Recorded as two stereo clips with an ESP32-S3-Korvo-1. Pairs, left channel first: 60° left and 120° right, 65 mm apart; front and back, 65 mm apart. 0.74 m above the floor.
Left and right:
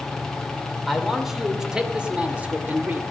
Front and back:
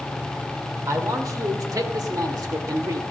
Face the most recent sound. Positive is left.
turn(degrees=-175)